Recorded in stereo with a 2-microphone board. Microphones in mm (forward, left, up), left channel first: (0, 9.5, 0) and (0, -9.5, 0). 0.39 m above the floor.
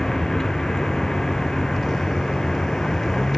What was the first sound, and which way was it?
A vehicle, 30° left (ahead or behind).